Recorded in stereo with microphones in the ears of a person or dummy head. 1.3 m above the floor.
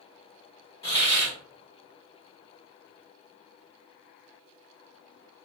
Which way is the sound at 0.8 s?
20° left (ahead or behind).